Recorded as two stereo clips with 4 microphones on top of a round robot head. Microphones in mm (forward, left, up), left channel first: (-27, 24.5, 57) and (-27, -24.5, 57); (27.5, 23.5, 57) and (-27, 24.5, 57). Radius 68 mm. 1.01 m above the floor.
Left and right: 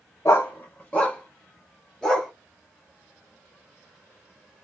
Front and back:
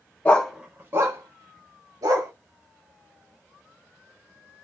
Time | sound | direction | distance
0.2 | a dog barking | 50° left | 0.5 m